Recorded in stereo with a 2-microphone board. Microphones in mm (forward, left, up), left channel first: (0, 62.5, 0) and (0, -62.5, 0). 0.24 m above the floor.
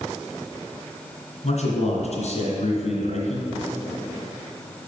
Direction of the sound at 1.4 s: 65° left (ahead or behind).